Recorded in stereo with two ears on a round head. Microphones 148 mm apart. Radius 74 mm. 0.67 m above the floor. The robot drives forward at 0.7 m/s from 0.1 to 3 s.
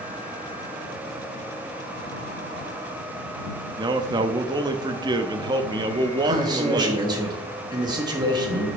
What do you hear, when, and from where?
3.8 s a man speaking: 25° right (ahead or behind), 0.6 m
6.2 s a man speaking: 25° right (ahead or behind), 1.2 m